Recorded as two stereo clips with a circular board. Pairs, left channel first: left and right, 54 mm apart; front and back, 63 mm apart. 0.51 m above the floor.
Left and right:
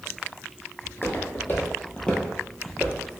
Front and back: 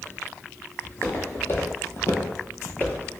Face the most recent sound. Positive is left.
turn(degrees=-65)